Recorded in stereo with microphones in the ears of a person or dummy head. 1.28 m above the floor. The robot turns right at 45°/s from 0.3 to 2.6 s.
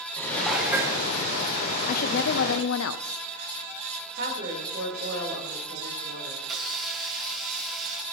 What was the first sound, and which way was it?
Dishes clattering, straight behind.